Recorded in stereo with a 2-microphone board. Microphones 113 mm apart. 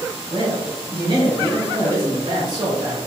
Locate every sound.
0.3 s a man speaking: 40° right (ahead or behind), 1.9 m